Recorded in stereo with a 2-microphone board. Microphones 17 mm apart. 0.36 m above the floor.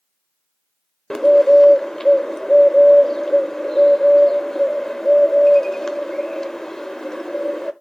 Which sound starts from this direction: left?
A bird, at 1.1 s.